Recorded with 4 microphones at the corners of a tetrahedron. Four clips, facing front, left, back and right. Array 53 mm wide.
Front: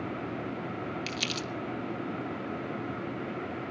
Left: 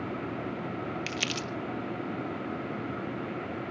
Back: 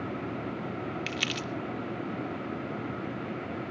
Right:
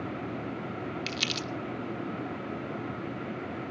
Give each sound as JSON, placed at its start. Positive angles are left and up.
{"t": 1.1, "sound": "crumpling", "azimuth_deg": 150, "distance_m": 0.7}